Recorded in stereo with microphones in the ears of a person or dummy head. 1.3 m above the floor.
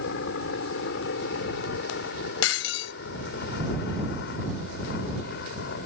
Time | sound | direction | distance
0.0 | a helicopter | 55° left (ahead or behind) | ?
2.4 | breaking glass | 75° left (ahead or behind) | ?